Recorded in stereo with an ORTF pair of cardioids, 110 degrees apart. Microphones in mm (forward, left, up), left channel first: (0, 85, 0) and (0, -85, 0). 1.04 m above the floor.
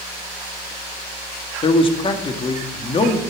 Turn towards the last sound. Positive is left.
turn(degrees=30)